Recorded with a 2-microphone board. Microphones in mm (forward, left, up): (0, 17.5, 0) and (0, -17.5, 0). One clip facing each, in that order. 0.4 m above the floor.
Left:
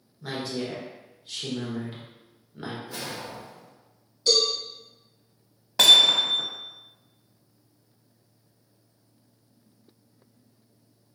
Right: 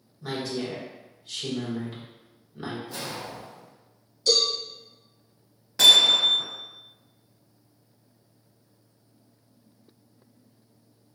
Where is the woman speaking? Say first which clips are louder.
Right 1 dB; 10° left (ahead or behind), 0.9 m.